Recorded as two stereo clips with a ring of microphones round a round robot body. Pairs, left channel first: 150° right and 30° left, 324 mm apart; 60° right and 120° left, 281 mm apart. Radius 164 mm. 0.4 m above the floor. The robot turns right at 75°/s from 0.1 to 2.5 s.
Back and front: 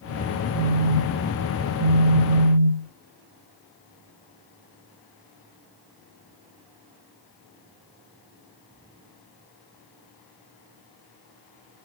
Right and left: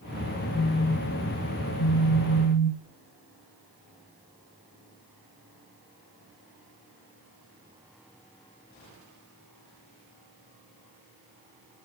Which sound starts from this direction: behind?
A phone buzzing, at 0.5 s.